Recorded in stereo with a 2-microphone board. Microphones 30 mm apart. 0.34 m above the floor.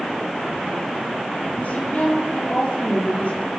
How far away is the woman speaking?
About 7.5 m.